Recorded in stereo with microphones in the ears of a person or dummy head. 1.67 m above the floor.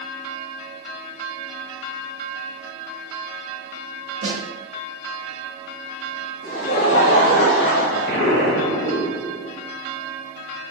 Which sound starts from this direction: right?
A snare drum, at 4.2 s.